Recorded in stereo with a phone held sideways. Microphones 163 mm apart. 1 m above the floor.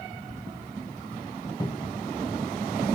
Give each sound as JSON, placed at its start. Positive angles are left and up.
{"t": 1.6, "sound": "a cupboard door", "side_deg": 25, "distance_m": 0.7}